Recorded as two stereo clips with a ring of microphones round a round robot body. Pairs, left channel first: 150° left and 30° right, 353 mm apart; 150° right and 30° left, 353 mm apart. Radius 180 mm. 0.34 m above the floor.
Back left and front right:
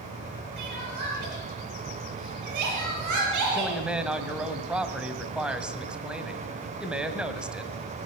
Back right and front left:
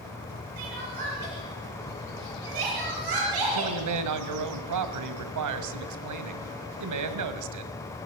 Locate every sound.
0.6 s crying: 5° left, 7 m
3.5 s a man speaking: 55° left, 2 m